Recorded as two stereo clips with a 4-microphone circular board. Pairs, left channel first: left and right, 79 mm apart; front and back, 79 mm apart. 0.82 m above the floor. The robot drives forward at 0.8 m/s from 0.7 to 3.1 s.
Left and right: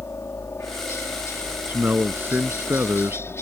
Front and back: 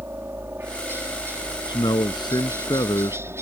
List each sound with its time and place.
0.0 s a helicopter: 130° left; by 3.4 s 135° left
1.7 s a man speaking: 20° right; by 3.3 s 25° right